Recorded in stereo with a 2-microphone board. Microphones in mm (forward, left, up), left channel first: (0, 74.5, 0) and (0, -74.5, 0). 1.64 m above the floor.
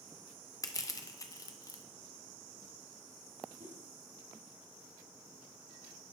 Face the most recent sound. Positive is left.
turn(degrees=-65)  # may be behind; listen again after turning